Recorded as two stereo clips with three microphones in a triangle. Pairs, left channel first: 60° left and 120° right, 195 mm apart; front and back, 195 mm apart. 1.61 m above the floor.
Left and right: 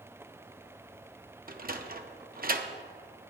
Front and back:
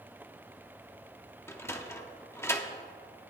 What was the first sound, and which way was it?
A sliding door, 75° right.